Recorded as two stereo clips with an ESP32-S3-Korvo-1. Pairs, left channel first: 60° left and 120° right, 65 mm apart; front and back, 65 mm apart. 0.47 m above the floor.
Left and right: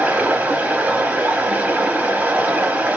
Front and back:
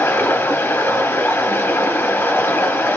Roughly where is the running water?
Ahead right.